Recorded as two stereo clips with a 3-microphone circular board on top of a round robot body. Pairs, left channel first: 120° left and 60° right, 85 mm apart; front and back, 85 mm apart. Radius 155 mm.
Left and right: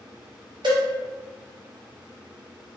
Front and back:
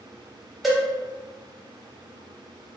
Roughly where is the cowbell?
Right.